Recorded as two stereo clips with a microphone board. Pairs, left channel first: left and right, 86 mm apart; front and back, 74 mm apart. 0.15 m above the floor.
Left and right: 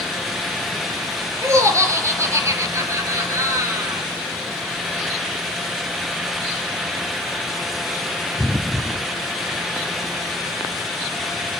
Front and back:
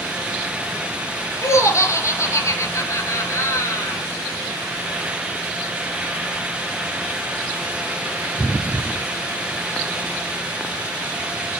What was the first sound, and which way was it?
Laughter, 40° right.